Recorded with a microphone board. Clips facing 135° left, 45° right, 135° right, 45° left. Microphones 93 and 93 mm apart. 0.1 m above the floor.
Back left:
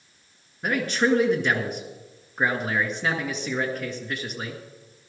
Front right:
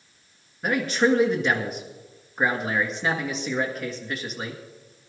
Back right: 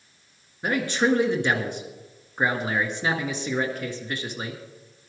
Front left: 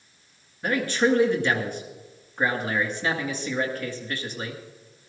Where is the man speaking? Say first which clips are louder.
Front right 1 dB, even; 130° right, 1.8 m.